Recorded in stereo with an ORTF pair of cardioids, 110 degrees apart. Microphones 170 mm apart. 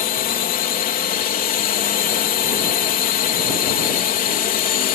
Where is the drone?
60° left.